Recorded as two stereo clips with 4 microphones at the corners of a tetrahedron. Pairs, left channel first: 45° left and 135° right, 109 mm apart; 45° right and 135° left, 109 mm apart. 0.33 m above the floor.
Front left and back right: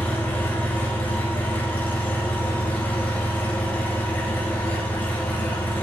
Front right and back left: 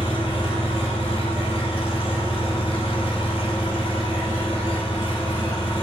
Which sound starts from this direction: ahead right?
An engine running, at 0.0 s.